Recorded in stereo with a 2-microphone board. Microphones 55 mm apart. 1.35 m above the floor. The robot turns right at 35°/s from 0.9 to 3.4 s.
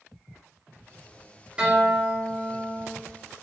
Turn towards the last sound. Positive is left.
turn(degrees=45)